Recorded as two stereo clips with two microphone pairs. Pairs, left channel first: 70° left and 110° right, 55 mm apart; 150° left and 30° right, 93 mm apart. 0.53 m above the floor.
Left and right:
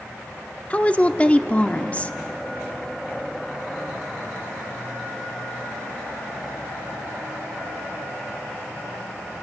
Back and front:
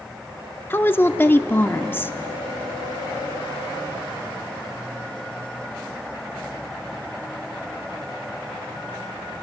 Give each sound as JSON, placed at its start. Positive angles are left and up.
{"t": 0.7, "sound": "a woman speaking", "azimuth_deg": 100, "distance_m": 0.9}